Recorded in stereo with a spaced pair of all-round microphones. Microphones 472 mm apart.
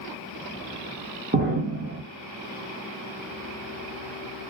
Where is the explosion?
30° right (ahead or behind), 1.0 m.